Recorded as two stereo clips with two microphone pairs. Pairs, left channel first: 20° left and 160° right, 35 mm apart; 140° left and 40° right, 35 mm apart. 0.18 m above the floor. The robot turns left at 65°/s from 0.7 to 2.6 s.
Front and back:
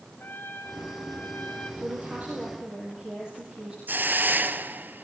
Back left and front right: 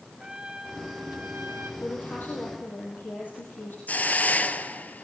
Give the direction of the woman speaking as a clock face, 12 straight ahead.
6 o'clock.